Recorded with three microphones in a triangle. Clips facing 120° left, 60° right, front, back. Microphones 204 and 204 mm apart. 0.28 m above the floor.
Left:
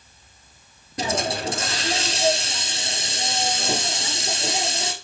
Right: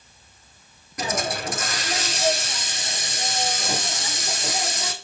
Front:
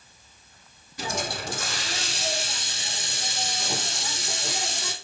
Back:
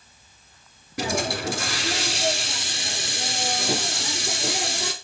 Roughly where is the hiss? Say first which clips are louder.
Left 2 dB, back 6 dB; behind.